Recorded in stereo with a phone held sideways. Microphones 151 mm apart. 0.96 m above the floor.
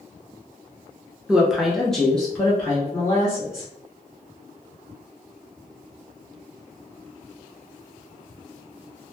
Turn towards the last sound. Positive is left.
turn(degrees=10)  # may be behind; listen again after turning